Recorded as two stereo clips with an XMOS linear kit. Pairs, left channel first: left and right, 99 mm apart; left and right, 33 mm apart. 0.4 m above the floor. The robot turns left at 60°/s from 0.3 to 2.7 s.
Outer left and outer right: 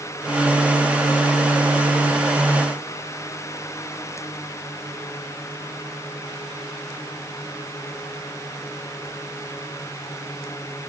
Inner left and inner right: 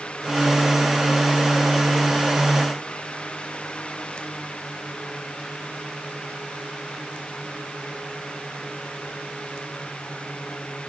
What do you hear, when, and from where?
Only background noise.